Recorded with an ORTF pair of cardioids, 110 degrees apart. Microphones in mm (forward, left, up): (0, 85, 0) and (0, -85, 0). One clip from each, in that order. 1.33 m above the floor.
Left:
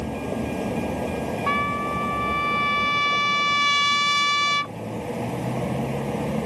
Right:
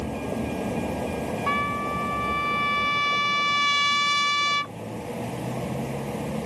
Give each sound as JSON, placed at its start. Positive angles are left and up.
{"t": 0.0, "sound": "a vehicle", "azimuth_deg": 10}
{"t": 1.5, "sound": "a trumpet", "azimuth_deg": 15}